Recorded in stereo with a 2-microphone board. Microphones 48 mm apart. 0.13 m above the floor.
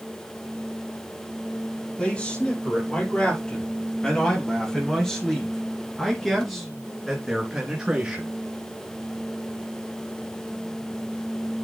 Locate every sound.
2.0 s a man speaking: 25° left (ahead or behind), 4 m; by 8.3 s 20° right (ahead or behind), 1.9 m